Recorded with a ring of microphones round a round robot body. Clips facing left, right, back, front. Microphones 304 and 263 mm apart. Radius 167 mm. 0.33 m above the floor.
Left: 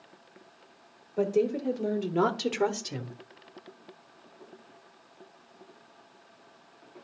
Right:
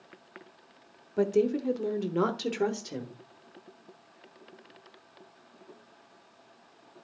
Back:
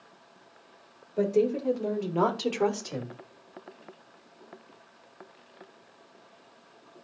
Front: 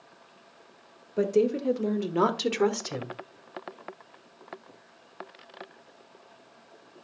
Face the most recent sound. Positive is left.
turn(degrees=45)